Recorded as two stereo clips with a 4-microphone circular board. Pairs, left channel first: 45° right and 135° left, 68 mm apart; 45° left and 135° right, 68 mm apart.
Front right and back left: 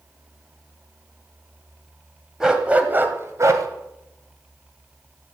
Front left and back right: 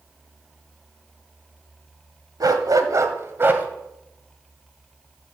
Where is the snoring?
No snoring in this recording.